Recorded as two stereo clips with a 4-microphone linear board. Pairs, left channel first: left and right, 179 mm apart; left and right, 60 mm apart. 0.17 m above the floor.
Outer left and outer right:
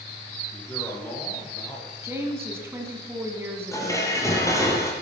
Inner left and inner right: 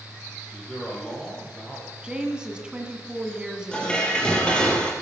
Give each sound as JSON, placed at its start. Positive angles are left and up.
{"t": 0.5, "sound": "a man speaking", "side_deg": 10, "distance_m": 5.0}
{"t": 2.0, "sound": "a woman speaking", "side_deg": -15, "distance_m": 1.7}
{"t": 3.7, "sound": "dishes clattering", "side_deg": 15, "distance_m": 3.0}